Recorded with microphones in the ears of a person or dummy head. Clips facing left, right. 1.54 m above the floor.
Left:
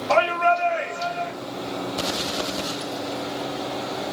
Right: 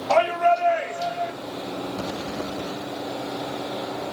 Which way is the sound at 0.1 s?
10° right (ahead or behind).